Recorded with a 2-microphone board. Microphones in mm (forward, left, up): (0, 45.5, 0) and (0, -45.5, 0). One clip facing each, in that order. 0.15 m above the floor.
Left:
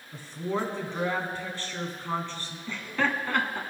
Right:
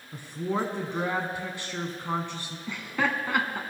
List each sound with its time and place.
0.1 s a woman speaking: 15° right (ahead or behind), 1.0 m
2.7 s laughter: 10° right (ahead or behind), 1.1 m